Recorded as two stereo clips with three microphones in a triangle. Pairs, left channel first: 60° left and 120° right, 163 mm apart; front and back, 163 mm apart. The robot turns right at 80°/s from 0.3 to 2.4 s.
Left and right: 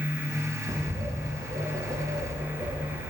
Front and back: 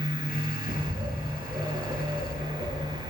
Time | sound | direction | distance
0.7 | a bird | 175° left | 1.5 m